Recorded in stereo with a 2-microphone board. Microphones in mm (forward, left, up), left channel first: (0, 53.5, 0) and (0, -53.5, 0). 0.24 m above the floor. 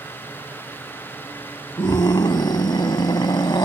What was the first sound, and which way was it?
A scream, 45° left (ahead or behind).